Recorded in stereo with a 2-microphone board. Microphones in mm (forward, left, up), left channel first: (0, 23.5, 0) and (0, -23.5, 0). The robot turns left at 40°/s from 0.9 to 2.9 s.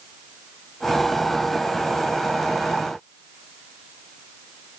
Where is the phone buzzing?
I don't hear a phone buzzing.